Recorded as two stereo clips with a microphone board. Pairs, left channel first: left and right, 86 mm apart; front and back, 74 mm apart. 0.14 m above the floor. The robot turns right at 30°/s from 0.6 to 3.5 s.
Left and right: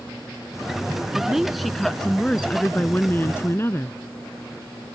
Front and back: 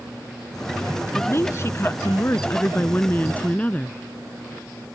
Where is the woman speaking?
15° right; by 4.0 s 55° left.